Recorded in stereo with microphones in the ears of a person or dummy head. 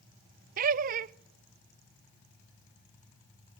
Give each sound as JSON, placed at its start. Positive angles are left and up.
{"t": 0.6, "sound": "laughter", "side_deg": -45, "distance_m": 0.6}